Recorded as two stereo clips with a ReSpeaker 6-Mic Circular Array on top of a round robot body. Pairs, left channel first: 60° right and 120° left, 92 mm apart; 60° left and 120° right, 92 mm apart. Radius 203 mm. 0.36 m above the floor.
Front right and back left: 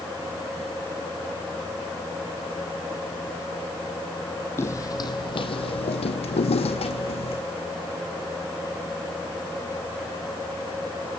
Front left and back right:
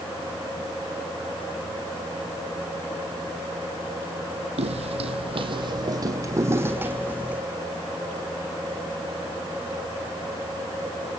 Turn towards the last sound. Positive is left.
turn(degrees=-45)